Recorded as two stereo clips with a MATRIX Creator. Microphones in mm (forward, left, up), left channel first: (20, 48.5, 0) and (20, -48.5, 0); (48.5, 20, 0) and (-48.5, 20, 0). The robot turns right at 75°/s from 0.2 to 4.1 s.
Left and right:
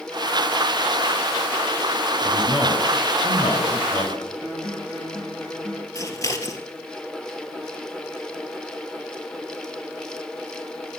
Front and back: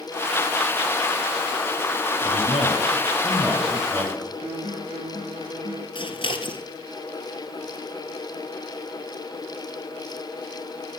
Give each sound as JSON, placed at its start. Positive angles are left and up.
{"t": 2.2, "sound": "a man speaking", "azimuth_deg": -30, "distance_m": 2.5}
{"t": 4.4, "sound": "a guitar", "azimuth_deg": 20, "distance_m": 7.0}
{"t": 6.0, "sound": "scissors", "azimuth_deg": 30, "distance_m": 1.4}